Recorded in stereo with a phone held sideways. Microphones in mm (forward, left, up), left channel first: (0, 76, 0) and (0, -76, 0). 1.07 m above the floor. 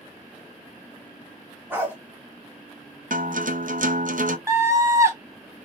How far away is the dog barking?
About 1.7 m.